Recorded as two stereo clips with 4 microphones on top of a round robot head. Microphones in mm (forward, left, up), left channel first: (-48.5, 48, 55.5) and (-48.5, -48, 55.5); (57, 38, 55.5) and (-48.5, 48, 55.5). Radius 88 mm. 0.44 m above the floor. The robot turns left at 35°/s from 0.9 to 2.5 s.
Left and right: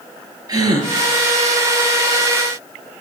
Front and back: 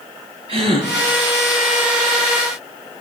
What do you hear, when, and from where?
0.5 s a gasp: 140° right, 5.5 m